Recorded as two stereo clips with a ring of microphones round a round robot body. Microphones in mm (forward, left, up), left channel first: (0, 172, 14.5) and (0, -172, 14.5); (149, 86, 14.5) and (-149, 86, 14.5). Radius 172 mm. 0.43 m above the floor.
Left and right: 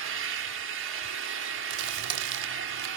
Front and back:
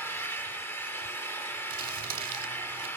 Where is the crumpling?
115° right, 0.9 m.